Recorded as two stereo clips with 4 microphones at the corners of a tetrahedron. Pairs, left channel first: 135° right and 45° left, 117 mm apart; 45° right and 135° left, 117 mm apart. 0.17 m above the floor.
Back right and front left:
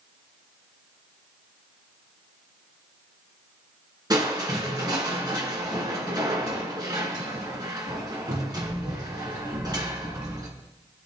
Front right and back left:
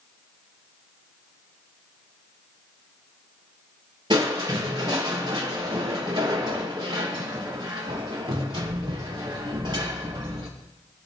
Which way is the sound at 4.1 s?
95° left.